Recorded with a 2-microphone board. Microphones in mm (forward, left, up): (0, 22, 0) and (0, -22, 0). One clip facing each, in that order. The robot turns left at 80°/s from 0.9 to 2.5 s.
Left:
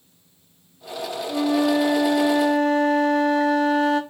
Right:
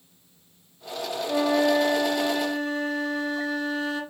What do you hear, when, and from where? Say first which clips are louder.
1.3 s a flute: left 1 dB; 145° right, 0.8 m; by 4.0 s 115° left, 0.8 m